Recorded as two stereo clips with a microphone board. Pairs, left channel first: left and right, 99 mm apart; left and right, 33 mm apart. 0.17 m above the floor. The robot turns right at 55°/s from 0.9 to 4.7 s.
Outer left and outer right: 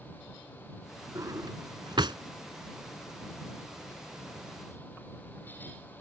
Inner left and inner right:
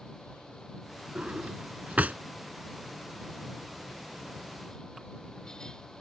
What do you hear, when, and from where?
1.1 s a drawer: 30° right (ahead or behind); by 2.2 s 50° right (ahead or behind)